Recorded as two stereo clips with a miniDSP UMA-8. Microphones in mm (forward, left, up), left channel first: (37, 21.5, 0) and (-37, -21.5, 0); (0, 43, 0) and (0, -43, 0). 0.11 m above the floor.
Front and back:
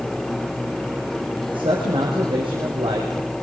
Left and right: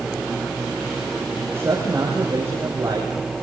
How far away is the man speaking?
About 5.5 m.